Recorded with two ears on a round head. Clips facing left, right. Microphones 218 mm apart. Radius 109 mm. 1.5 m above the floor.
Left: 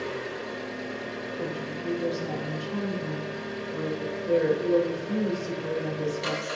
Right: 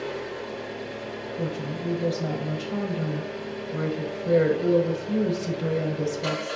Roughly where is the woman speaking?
Right.